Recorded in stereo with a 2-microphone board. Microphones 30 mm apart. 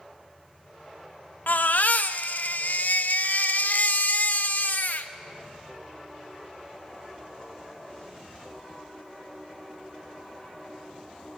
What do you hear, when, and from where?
1.5 s a baby crying: 85° left, 0.5 m